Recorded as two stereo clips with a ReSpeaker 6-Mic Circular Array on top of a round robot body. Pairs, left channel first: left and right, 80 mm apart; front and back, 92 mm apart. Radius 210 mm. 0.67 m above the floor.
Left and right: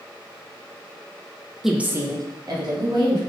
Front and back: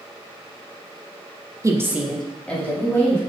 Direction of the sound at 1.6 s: 175° right.